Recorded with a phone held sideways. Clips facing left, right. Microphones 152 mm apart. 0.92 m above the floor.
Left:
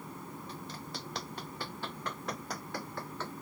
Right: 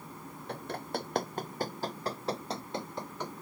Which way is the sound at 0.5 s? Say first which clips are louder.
Right 7 dB; 60° right (ahead or behind).